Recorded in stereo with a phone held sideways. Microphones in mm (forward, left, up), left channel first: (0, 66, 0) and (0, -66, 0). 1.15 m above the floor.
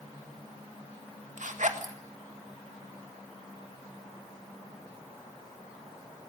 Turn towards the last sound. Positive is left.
turn(degrees=-70)  # may be behind; listen again after turning